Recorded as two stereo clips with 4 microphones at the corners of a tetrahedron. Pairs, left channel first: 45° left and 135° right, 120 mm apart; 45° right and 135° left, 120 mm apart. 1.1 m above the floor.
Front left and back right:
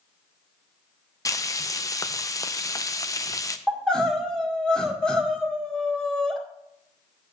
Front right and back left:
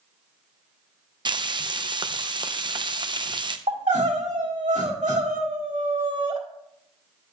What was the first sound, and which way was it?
Frying, 100° left.